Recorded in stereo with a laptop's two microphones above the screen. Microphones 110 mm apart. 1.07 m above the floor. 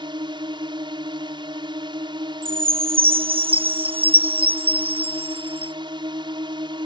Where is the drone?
45° right (ahead or behind).